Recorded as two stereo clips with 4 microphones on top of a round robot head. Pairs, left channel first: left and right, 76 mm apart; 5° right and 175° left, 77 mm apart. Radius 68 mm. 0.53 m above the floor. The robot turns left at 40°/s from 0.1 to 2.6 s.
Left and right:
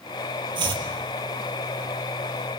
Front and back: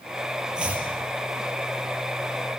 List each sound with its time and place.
0.6 s chopping: 100° right, 4 m; by 0.9 s 115° right, 4 m